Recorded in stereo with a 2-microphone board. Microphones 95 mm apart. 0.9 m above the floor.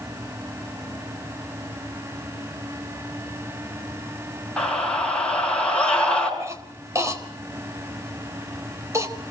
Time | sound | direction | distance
4.6 | a scream | 10° left (ahead or behind) | 8 m
6.4 | a cough | 30° right (ahead or behind) | 4 m